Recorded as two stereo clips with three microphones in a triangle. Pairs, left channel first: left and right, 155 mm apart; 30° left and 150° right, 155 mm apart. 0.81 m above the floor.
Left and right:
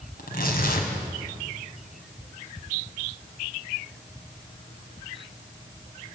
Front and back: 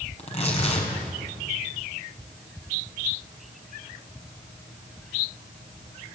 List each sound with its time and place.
0.2 s tearing paper: 80° left, 4.5 m